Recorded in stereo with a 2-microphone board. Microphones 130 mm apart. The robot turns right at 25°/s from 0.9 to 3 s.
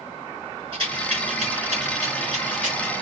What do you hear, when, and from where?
0.7 s a rattle: 40° right (ahead or behind), 4.5 m; by 2.9 s 75° right (ahead or behind), 4.5 m